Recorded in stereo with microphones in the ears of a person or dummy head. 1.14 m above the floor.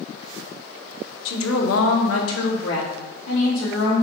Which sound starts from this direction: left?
A woman speaking, at 1.2 s.